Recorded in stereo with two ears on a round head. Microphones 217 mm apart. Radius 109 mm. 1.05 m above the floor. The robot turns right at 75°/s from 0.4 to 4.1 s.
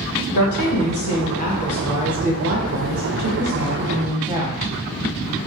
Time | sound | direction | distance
0.3 | a woman speaking | 75° left | 0.7 m